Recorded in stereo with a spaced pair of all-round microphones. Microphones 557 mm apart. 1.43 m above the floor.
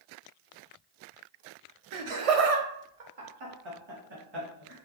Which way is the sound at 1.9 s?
60° right (ahead or behind).